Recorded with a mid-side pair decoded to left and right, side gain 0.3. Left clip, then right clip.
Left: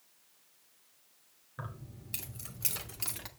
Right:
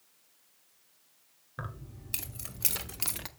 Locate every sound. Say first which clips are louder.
1.6 s keys jangling: right 3 dB; 60° right, 3 m; by 3.3 s 70° right, 0.9 m